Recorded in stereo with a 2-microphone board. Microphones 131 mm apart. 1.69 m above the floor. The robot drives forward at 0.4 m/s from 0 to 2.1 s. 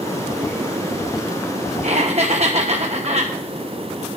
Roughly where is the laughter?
Right.